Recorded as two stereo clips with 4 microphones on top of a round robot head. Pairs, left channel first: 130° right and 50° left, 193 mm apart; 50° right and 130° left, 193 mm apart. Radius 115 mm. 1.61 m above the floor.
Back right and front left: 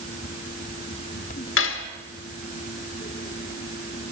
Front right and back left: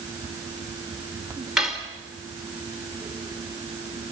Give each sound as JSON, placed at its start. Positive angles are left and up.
{"t": 1.6, "sound": "cutlery clinking", "azimuth_deg": -145, "distance_m": 1.5}